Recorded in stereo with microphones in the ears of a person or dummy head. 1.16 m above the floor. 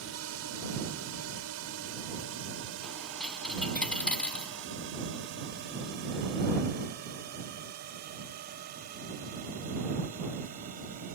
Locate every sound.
0.0 s a drone: 75° right (ahead or behind); by 11.2 s 40° right (ahead or behind)
2.8 s a dropped coin: 5° left (ahead or behind)